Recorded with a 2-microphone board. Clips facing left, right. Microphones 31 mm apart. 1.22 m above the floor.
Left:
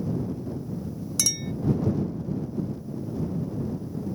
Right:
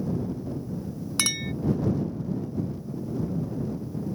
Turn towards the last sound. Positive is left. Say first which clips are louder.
# right 1 dB
turn(degrees=-45)  # may be behind; listen again after turning